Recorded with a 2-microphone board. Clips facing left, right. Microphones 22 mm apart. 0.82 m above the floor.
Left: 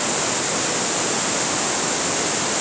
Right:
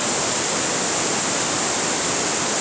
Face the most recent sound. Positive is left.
No sound to turn to.